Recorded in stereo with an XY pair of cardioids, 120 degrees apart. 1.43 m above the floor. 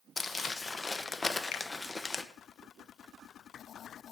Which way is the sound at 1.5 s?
65° left.